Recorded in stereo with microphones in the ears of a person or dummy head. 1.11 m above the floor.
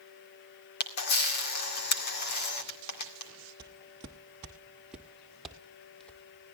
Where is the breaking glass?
I don't hear breaking glass.